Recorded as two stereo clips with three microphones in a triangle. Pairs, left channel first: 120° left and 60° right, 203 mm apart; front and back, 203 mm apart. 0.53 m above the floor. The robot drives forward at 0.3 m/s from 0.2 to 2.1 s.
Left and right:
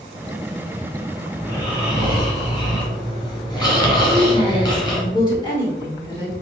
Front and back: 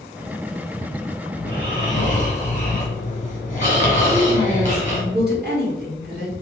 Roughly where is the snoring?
Ahead left.